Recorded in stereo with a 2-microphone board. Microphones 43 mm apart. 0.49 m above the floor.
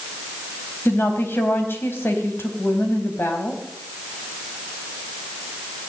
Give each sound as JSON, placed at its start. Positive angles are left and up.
{"t": 0.8, "sound": "a woman speaking", "side_deg": 55, "distance_m": 3.5}